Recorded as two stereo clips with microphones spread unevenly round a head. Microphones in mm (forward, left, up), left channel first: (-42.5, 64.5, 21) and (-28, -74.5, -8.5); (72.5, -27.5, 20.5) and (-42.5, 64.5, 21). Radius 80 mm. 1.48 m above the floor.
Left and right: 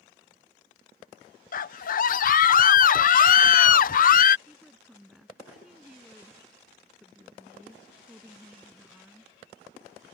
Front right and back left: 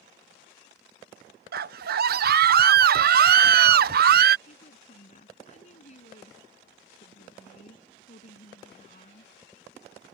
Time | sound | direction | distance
1.5 | a scream | 125° left | ?
4.5 | a woman speaking | 5° left | ?